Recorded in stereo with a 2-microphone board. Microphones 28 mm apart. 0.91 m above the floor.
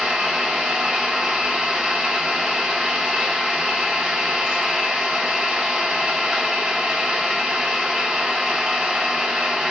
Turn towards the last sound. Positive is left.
turn(degrees=-20)  # may be behind; listen again after turning